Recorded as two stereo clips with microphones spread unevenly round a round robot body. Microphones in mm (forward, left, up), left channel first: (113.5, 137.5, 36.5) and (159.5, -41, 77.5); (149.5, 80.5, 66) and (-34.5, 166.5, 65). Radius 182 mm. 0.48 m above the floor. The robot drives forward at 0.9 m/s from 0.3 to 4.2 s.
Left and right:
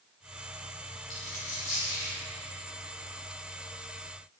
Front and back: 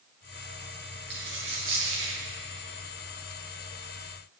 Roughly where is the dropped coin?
Behind left.